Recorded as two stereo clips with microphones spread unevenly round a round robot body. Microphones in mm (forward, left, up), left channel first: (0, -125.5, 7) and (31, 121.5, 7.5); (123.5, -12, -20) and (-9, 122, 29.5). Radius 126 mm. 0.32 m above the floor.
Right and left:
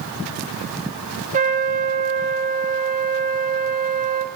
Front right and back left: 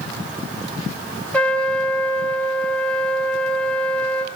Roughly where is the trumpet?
Ahead left.